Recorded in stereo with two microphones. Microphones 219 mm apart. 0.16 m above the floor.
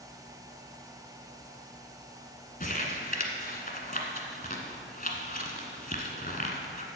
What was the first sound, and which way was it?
Crumpling, 40° left (ahead or behind).